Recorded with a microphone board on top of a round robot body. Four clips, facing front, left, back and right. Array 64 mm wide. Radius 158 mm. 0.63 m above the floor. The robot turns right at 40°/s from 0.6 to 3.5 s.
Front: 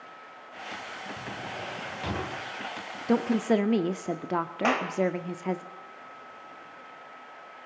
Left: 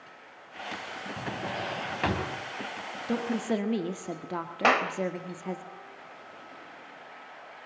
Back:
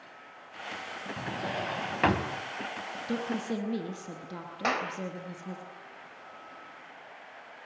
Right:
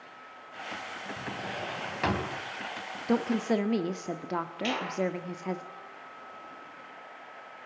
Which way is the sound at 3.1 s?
25° right.